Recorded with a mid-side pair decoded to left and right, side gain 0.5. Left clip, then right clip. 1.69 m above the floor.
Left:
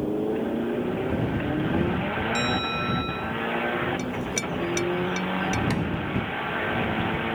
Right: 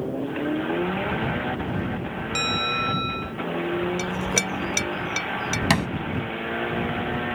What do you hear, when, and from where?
2.4 s a bell: 35° right
4.0 s a clink: 45° right
5.7 s a thud: 70° right